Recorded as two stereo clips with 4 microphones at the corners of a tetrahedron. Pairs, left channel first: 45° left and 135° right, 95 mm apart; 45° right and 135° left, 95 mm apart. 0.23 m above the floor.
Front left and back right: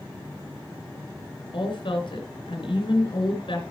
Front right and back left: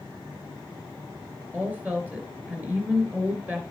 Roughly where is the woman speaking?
Ahead left.